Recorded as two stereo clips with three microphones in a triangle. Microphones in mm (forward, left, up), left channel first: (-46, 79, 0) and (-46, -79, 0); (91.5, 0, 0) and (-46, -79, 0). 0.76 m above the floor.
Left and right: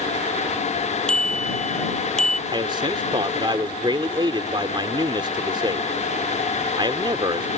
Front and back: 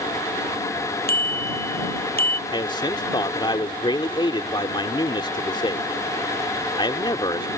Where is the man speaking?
30° right.